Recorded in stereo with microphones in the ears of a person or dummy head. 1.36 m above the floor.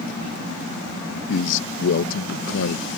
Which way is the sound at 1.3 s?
70° left (ahead or behind).